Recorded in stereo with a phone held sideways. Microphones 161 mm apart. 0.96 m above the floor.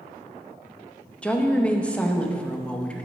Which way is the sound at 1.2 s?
5° left (ahead or behind).